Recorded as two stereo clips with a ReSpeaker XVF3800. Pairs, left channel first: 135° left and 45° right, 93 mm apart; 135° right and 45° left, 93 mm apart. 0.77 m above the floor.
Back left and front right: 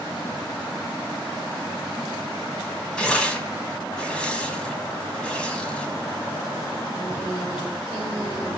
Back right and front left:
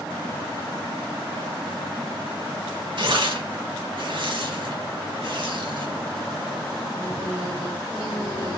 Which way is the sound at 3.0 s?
55° left.